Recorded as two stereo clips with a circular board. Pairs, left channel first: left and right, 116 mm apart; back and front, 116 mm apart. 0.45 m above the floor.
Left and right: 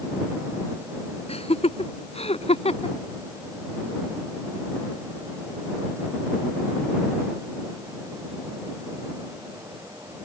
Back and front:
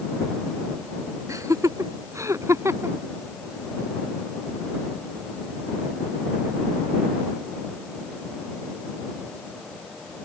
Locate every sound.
1.3 s laughter: 60° left; by 3.0 s 65° left